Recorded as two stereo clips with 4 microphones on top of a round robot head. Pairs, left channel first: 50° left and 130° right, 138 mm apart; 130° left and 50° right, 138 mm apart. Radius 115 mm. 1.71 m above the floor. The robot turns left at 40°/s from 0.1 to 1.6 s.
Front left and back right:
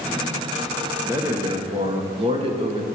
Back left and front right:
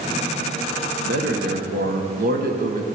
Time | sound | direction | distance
1.0 | a man speaking | 50° right | 1.4 m